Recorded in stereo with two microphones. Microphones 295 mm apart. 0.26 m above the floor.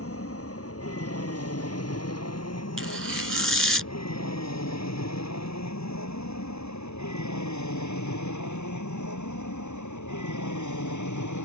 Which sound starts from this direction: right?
Tearing paper, at 2.8 s.